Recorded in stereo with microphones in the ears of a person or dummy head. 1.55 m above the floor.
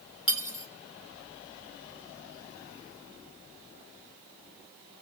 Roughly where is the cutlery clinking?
Centre.